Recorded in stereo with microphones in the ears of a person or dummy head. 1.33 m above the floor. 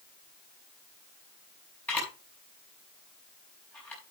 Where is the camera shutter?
10° left (ahead or behind), 6 m.